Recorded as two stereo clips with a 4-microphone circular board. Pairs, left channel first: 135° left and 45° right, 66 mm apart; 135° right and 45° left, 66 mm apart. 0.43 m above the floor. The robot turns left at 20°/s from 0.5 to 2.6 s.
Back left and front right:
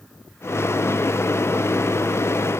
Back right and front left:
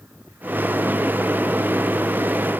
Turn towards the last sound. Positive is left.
No sound to turn to.